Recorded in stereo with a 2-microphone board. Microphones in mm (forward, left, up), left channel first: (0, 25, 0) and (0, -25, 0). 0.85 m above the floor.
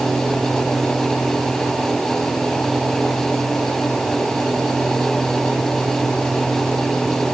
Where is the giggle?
No giggle in this recording.